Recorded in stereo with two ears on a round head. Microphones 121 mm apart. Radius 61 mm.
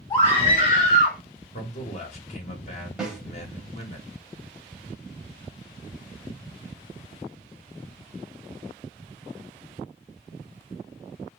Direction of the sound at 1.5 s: 55° left (ahead or behind).